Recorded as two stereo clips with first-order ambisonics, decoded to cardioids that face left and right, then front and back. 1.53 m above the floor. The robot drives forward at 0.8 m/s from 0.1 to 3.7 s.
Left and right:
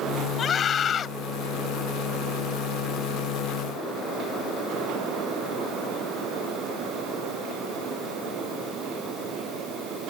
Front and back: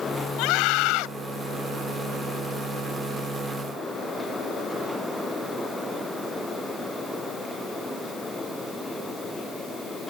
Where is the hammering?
I don't hear hammering.